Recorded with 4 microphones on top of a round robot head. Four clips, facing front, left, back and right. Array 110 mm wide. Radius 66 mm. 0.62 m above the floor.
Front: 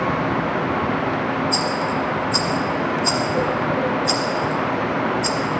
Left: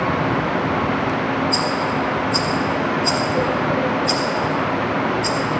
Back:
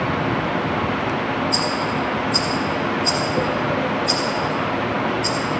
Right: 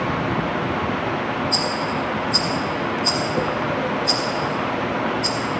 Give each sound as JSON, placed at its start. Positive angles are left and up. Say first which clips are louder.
{"t": 1.5, "sound": "a rattle", "louder": "left 3 dB, even", "azimuth_deg": -25, "distance_m": 1.7}